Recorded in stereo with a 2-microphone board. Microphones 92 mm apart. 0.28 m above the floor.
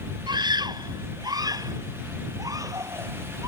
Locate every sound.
0.3 s a scream: 50° right (ahead or behind); by 3.5 s 35° right (ahead or behind)